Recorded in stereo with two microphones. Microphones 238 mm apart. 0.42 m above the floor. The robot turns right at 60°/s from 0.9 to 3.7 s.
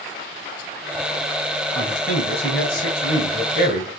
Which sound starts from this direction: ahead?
A man speaking, at 1.7 s.